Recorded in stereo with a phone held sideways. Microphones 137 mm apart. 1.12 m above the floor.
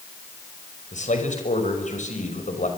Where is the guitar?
No guitar in this recording.